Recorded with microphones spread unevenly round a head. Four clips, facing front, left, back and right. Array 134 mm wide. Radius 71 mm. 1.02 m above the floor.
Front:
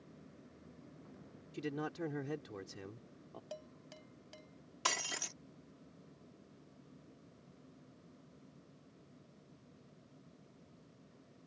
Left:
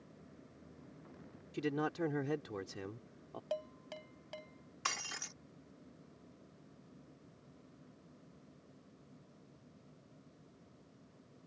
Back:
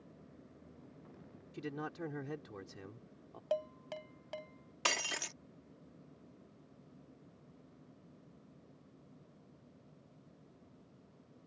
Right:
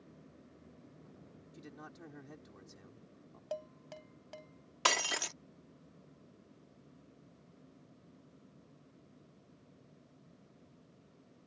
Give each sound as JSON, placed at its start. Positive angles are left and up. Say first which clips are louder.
{"t": 1.5, "sound": "a man speaking", "louder": "left 16 dB, front 2 dB", "azimuth_deg": 70}
{"t": 3.5, "sound": "dishes clattering", "louder": "left 1 dB, back 16 dB", "azimuth_deg": 175}
{"t": 4.8, "sound": "breaking glass", "louder": "right 9 dB, back 1 dB", "azimuth_deg": -110}